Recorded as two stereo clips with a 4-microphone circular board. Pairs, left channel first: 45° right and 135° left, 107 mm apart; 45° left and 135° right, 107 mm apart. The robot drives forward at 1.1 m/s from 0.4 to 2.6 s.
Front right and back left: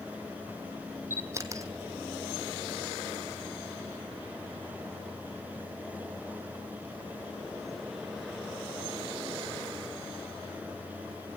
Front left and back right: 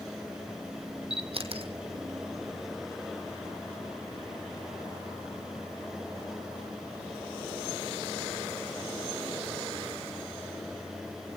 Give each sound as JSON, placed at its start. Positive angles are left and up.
{"t": 1.1, "sound": "a camera shutter", "azimuth_deg": -160, "distance_m": 1.6}